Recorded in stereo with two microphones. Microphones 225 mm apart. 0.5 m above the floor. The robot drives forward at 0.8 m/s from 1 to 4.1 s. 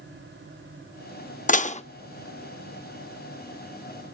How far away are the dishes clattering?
About 0.5 m.